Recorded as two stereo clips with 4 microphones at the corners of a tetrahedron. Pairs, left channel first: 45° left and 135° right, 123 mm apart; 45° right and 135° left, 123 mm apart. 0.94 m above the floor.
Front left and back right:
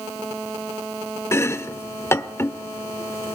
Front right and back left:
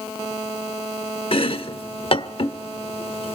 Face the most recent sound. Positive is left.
turn(degrees=-20)